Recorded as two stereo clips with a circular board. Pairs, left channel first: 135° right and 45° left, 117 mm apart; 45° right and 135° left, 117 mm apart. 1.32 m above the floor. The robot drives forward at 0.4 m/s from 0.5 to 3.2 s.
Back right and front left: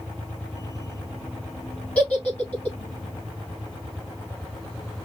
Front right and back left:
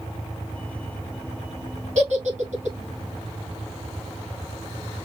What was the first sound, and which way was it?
A giggle, 145° left.